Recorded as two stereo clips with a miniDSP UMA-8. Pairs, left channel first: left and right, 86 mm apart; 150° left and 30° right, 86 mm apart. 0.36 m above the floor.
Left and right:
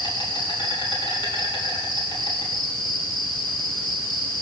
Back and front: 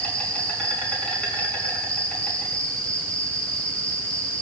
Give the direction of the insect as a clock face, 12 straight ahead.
9 o'clock.